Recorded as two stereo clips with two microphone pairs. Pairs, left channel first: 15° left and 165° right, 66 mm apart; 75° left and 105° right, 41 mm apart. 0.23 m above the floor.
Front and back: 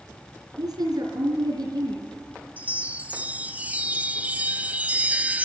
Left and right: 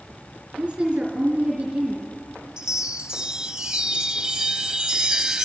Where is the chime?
145° right, 0.8 m.